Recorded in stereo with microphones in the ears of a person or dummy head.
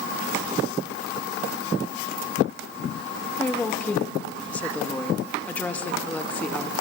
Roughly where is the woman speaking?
Centre.